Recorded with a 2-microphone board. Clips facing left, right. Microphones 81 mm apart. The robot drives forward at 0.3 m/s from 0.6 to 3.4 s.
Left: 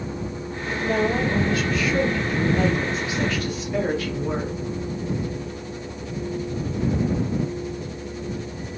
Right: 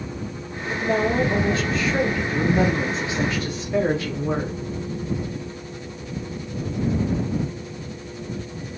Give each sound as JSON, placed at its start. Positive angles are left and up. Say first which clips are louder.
{"t": 0.7, "sound": "a woman speaking", "louder": "right 1 dB", "side_deg": -25, "distance_m": 0.9}